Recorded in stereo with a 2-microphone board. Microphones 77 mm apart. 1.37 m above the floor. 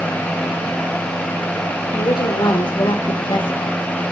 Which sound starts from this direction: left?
A woman speaking, at 1.9 s.